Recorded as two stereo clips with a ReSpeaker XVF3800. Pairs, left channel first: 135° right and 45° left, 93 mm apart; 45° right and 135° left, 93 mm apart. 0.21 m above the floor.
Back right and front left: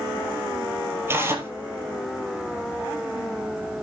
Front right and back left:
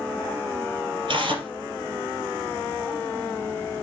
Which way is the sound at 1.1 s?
110° left.